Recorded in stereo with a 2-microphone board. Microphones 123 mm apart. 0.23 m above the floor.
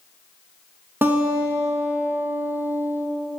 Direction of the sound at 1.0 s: 15° right (ahead or behind).